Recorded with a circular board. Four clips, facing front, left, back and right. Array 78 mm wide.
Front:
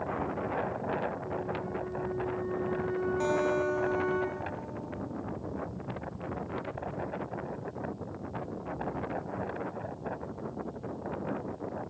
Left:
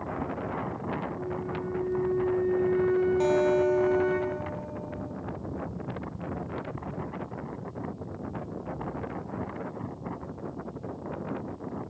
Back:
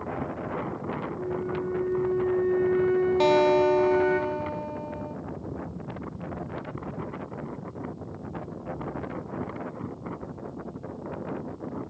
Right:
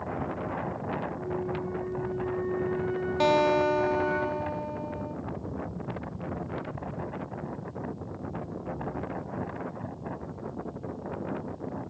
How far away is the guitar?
About 1.7 m.